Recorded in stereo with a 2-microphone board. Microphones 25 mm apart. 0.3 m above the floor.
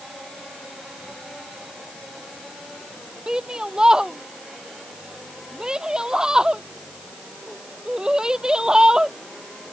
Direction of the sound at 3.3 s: 25° right (ahead or behind).